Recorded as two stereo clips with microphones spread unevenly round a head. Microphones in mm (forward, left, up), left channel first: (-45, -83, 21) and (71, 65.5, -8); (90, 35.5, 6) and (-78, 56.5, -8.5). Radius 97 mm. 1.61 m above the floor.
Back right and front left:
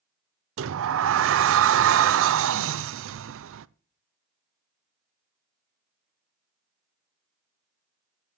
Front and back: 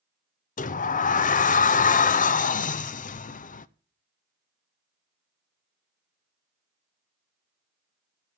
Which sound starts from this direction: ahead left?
A sliding door, at 0.6 s.